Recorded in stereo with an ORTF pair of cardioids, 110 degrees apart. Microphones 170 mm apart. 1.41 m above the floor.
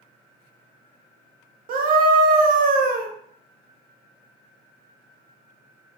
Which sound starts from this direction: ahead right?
A scream, at 1.7 s.